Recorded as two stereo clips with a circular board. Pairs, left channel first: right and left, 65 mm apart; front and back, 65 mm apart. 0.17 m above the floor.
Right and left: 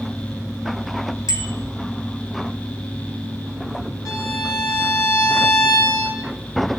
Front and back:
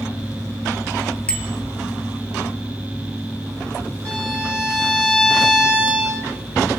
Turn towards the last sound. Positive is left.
turn(degrees=-70)